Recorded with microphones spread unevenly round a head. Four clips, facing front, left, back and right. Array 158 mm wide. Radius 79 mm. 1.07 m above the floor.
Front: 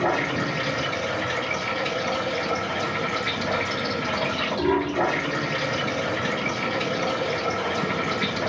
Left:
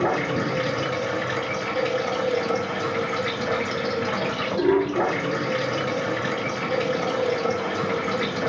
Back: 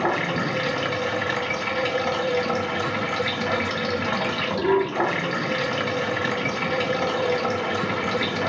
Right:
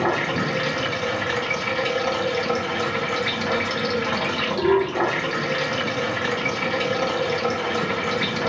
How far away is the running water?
About 1.5 m.